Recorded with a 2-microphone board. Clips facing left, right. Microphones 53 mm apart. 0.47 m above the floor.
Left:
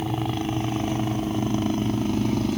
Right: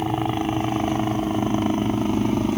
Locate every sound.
0.0 s a helicopter: 25° right (ahead or behind)